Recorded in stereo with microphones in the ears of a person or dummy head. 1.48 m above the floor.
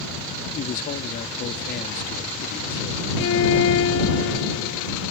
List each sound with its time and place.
0.6 s a man speaking: 45° left (ahead or behind)
3.2 s a violin: 65° left (ahead or behind)